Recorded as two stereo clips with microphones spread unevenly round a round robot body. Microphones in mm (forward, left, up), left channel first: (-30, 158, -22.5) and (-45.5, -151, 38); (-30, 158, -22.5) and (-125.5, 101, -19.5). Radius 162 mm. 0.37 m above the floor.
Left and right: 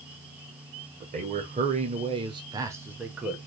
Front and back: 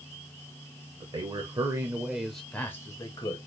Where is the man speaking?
165° right, 1.1 m; by 3.4 s 10° left, 1.1 m.